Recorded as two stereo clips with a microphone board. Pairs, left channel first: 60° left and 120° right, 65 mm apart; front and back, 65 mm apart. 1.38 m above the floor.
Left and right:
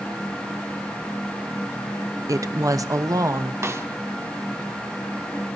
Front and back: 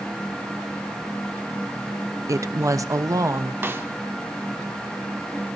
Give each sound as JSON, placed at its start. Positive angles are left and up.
{"t": 2.3, "sound": "a woman speaking", "azimuth_deg": -150, "distance_m": 0.7}
{"t": 3.6, "sound": "a snare drum", "azimuth_deg": -145, "distance_m": 1.3}